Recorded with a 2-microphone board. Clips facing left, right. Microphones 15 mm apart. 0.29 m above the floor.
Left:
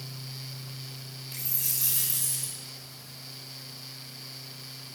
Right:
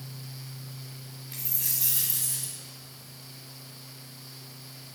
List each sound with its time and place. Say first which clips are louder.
1.3 s a dropped coin: even; 15° left (ahead or behind), 6.5 m